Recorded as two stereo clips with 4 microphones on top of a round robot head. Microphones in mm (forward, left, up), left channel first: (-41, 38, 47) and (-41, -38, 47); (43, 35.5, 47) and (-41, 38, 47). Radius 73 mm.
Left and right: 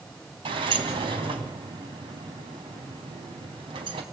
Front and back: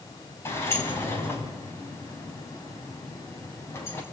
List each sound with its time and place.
0.5 s a sliding door: 70° right, 3 m